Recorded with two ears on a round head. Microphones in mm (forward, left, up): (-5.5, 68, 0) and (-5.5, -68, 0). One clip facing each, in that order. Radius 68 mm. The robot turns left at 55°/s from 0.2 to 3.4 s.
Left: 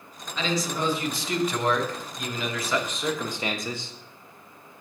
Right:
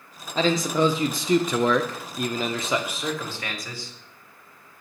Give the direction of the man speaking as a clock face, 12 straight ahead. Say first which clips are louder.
Right 6 dB; 1 o'clock.